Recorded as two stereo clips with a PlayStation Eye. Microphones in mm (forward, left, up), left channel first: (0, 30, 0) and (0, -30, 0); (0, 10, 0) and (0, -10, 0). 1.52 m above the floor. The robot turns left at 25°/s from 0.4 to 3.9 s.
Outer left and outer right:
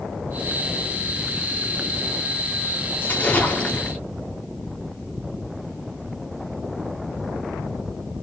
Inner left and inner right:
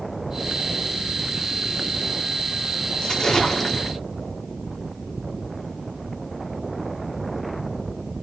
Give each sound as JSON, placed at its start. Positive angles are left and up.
{"t": 3.0, "sound": "a splash", "side_deg": 30, "distance_m": 0.7}